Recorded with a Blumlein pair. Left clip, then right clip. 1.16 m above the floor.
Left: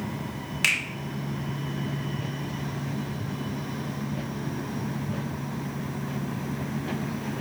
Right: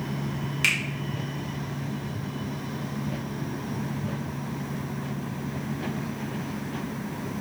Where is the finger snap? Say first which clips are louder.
Even; 5° left, 1.1 m.